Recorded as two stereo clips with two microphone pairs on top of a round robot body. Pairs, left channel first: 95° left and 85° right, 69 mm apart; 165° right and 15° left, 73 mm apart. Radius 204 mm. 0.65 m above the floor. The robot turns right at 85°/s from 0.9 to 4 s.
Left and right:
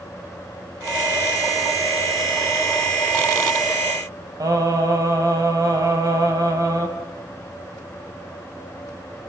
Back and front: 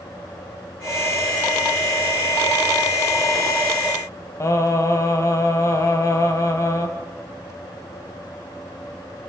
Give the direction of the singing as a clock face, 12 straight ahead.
4 o'clock.